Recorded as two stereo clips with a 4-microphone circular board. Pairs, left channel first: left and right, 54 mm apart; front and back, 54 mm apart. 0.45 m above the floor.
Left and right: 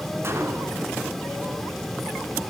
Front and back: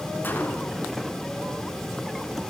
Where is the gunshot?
55° right, 1.7 m.